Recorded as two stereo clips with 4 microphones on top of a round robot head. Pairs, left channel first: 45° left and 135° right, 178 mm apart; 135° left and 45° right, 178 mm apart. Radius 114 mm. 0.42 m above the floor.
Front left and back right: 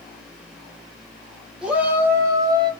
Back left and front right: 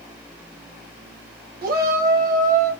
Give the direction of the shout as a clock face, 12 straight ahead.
2 o'clock.